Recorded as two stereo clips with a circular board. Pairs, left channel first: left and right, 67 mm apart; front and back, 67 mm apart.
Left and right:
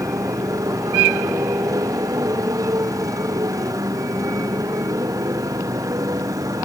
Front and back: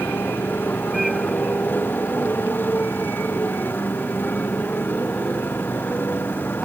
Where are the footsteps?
No footsteps in this recording.